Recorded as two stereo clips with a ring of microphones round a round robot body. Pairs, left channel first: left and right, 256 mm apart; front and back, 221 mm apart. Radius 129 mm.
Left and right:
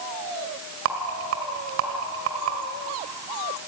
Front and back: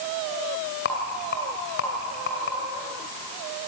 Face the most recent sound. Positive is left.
turn(degrees=-50)